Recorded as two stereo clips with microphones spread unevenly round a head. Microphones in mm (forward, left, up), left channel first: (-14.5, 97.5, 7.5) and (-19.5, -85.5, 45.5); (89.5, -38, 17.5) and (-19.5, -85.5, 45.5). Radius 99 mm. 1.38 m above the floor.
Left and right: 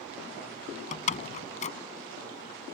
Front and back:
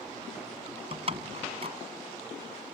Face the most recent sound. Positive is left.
turn(degrees=145)